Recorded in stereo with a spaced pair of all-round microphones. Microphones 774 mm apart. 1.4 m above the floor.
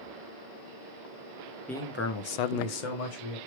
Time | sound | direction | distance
1.7 | a man speaking | centre (ahead or behind) | 1.0 m